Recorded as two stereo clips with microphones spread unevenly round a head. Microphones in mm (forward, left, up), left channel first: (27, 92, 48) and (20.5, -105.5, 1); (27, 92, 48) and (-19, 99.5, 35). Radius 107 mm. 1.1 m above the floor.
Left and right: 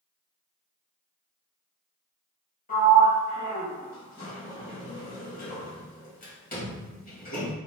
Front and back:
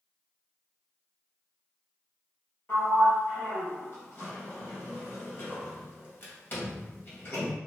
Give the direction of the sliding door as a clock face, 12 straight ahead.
11 o'clock.